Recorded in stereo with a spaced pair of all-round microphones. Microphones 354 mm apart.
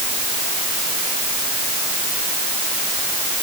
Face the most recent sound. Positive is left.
No sound to turn to.